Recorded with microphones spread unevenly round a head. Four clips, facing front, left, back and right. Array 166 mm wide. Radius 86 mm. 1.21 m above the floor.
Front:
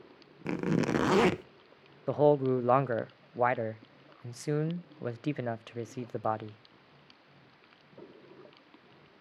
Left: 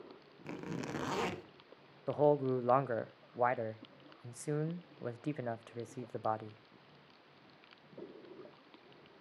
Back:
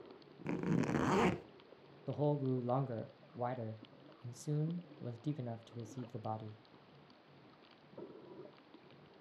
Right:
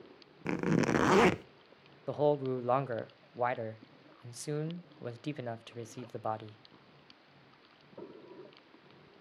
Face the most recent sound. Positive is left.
turn(degrees=5)